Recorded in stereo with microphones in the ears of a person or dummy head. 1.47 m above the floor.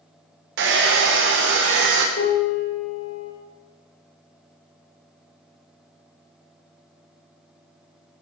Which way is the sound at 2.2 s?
75° left (ahead or behind).